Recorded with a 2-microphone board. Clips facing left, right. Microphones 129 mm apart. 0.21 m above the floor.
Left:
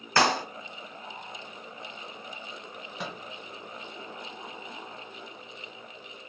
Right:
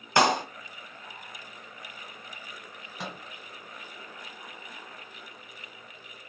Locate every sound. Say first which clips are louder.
0.2 s a clap: right 2 dB; 15° right (ahead or behind), 0.8 m
3.0 s a microwave: left 1 dB; centre (ahead or behind), 1.8 m